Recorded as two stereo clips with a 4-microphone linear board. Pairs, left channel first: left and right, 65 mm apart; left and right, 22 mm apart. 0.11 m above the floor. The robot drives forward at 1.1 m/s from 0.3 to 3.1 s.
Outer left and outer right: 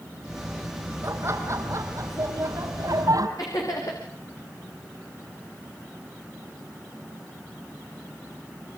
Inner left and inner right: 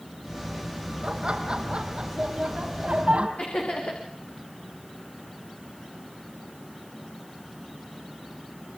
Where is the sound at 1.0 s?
45° right (ahead or behind), 4.5 m; by 3.3 s 65° right (ahead or behind), 3.5 m.